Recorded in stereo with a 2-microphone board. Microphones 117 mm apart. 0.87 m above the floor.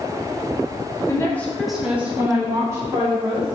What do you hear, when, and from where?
1.1 s a woman speaking: 25° left (ahead or behind), 0.6 m; by 3.5 s 30° right (ahead or behind), 1.6 m